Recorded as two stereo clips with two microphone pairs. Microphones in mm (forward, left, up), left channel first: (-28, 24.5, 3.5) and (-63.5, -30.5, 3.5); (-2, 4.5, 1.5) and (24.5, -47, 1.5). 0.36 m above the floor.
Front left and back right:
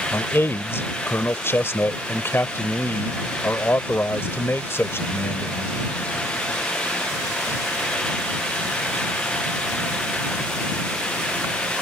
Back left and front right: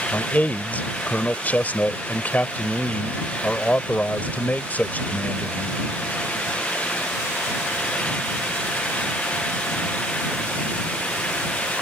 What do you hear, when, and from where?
0.1 s a man speaking: 75° left